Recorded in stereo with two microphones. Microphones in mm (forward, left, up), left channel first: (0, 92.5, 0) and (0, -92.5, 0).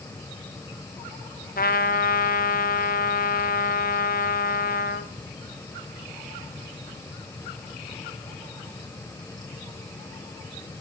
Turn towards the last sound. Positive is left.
turn(degrees=55)  # may be behind; listen again after turning